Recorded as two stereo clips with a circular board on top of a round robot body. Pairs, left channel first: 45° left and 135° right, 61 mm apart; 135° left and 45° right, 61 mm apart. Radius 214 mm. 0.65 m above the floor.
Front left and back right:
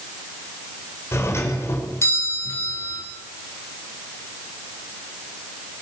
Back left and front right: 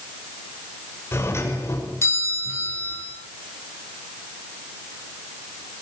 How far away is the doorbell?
About 5.5 m.